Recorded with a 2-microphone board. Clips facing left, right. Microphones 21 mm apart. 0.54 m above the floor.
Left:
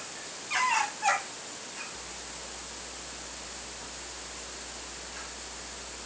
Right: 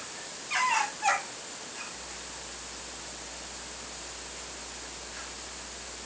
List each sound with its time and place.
Only background noise.